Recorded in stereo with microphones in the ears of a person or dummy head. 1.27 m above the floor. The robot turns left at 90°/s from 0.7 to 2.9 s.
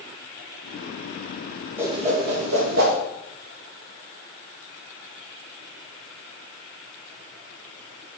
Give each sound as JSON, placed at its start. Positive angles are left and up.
{"t": 1.8, "sound": "a whoosh", "side_deg": -10, "distance_m": 2.0}